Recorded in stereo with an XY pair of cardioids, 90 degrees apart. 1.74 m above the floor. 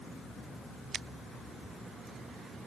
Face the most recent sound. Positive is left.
No sound to turn to.